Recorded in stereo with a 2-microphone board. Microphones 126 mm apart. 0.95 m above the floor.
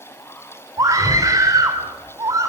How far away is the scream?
About 3 m.